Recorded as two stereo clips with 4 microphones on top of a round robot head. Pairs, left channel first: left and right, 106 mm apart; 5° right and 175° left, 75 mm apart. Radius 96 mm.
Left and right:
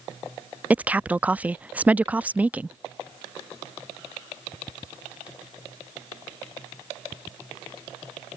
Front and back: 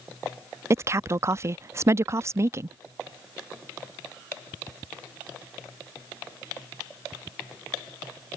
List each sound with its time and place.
0.7 s a woman speaking: 160° right